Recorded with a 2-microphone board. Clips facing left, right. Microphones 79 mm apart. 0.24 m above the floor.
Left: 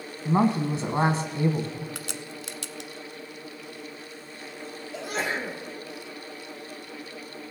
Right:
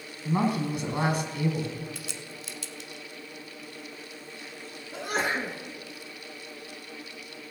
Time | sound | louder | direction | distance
0.2 | a woman speaking | left 4 dB | 35° left (ahead or behind) | 1.6 m
1.9 | a crack | left 3 dB | 70° left (ahead or behind) | 0.5 m
4.9 | a sneeze | right 1 dB | 55° right (ahead or behind) | 2.5 m